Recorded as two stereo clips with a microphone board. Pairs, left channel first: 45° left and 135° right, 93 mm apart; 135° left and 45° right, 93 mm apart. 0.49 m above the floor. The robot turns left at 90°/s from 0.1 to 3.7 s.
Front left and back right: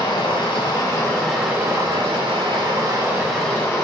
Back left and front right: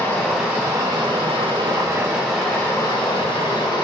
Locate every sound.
0.0 s running water: 70° left, 1.3 m; by 3.9 s 105° left, 1.3 m